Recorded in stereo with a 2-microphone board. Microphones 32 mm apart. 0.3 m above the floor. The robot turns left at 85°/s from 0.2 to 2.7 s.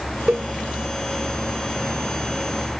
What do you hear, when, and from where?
0.3 s a cowbell: 55° right (ahead or behind); by 0.5 s 40° right (ahead or behind)